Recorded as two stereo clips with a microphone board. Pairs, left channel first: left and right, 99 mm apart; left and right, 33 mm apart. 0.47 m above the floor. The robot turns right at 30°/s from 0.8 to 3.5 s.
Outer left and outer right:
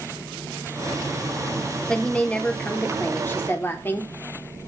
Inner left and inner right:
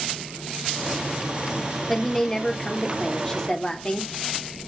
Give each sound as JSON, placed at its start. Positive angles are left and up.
{"t": 1.9, "sound": "a woman speaking", "side_deg": 10, "distance_m": 0.8}